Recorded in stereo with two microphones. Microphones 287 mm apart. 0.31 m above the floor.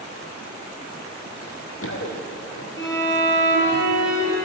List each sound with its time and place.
1.4 s running footsteps: 55° left (ahead or behind), 4.5 m; by 3.8 s 20° left (ahead or behind), 5.5 m
2.8 s a violin: 40° left (ahead or behind), 7.5 m